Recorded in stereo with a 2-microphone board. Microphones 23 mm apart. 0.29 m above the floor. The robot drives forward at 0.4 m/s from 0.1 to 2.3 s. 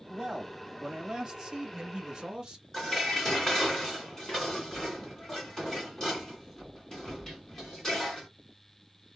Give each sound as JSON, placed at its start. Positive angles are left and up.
{"t": 0.1, "sound": "a man speaking", "side_deg": -25, "distance_m": 1.4}
{"t": 2.7, "sound": "dishes clattering", "side_deg": 20, "distance_m": 1.9}